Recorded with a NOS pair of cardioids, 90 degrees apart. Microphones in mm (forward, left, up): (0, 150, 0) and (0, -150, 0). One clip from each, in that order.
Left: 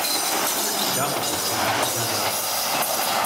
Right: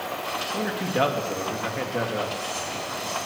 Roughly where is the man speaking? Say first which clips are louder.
Left 1 dB; ahead right.